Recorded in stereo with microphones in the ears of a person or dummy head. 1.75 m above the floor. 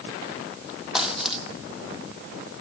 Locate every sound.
0.9 s a dropped coin: centre (ahead or behind), 2.5 m